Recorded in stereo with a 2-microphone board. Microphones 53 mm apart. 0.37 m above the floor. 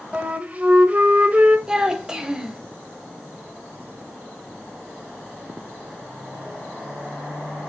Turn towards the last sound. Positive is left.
turn(degrees=-15)  # may be behind; listen again after turning